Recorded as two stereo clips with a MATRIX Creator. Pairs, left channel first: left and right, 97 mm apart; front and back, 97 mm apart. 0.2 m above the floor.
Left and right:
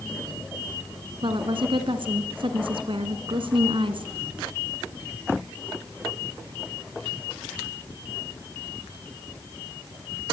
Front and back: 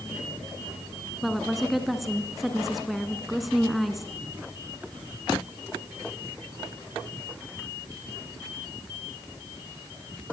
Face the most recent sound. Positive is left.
turn(degrees=-90)